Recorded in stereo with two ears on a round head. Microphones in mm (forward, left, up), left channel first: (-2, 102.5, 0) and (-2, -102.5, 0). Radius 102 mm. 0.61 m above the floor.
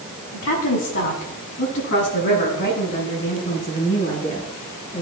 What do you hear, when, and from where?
0.3 s a woman speaking: 70° left (ahead or behind), 5.5 m; by 5.0 s 35° left (ahead or behind), 10.5 m